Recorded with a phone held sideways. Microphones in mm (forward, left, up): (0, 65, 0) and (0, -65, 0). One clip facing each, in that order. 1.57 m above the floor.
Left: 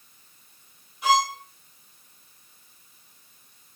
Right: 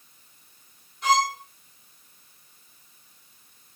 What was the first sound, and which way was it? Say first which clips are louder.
A violin: even; 10° left (ahead or behind).